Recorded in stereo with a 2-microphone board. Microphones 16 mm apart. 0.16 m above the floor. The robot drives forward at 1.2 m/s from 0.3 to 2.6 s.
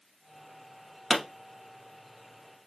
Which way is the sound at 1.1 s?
Centre (ahead or behind).